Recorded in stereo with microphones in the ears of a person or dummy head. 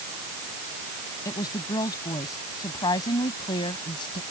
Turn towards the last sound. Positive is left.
turn(degrees=25)  # may be behind; listen again after turning